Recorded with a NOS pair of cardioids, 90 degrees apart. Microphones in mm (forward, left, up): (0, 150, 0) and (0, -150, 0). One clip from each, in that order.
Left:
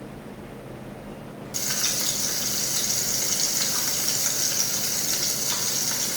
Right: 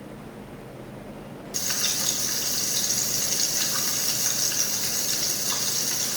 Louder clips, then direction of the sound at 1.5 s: Even; 5° right.